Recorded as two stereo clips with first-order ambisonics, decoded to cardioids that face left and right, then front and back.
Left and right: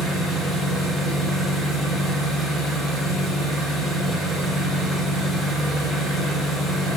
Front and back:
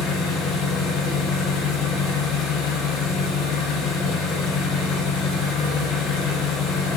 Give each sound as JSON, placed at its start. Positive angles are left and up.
{"t": 0.0, "sound": "an engine running", "azimuth_deg": -20, "distance_m": 4.0}